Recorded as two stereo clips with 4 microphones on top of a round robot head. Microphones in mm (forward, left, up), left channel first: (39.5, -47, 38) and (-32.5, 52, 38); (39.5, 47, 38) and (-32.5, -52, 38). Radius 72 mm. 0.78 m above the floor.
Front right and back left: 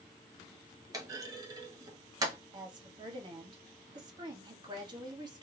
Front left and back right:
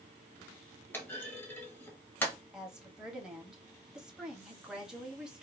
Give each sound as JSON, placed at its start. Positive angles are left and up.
{"t": 0.9, "sound": "a clunk", "azimuth_deg": 110, "distance_m": 1.0}
{"t": 2.5, "sound": "a woman speaking", "azimuth_deg": 150, "distance_m": 1.0}